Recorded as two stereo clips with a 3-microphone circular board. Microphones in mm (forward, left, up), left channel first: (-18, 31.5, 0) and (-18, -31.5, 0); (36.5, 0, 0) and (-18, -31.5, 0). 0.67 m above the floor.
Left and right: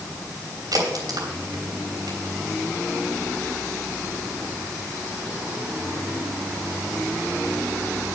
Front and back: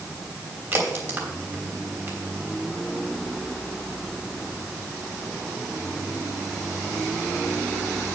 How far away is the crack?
About 3 m.